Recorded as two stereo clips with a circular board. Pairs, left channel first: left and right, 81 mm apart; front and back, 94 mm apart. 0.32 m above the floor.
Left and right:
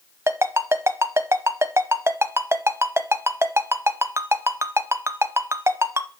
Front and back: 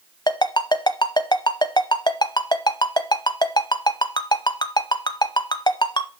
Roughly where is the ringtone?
Ahead right.